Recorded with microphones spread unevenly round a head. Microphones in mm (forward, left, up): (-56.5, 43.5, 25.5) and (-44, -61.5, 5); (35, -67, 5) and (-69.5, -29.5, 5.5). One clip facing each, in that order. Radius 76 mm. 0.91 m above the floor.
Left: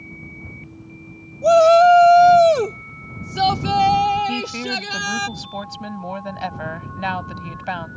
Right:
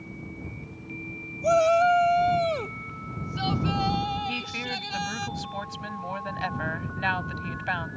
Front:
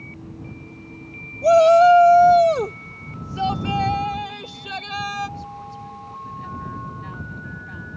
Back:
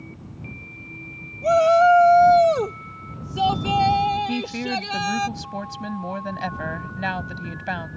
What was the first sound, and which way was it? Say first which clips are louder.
A shout: left 9 dB, front 3 dB; 45° left.